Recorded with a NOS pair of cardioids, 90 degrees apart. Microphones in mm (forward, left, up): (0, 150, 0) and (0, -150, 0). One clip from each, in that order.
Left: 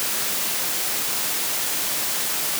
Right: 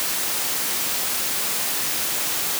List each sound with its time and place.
Only background noise.